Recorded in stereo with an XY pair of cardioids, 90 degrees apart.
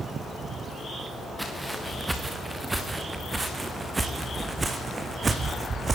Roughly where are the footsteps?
Ahead.